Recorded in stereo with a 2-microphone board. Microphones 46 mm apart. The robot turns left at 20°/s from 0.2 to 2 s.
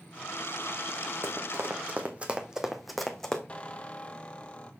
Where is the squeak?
25° left (ahead or behind), 0.7 m.